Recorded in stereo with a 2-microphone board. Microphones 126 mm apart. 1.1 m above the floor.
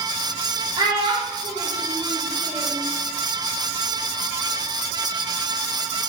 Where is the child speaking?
35° right (ahead or behind), 1.2 m; by 2.8 s 75° right (ahead or behind), 1.5 m.